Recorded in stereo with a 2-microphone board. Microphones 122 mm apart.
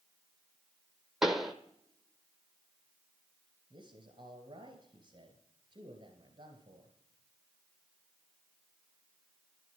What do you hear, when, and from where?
1.2 s a pop: centre (ahead or behind), 1.0 m
3.7 s a man speaking: 40° right (ahead or behind), 1.9 m